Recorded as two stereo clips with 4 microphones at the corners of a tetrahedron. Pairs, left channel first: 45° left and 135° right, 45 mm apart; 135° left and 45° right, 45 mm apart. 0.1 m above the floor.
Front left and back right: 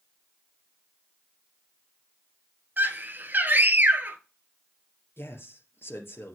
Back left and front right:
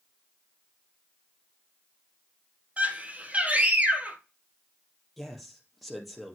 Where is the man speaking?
45° left, 2.5 m.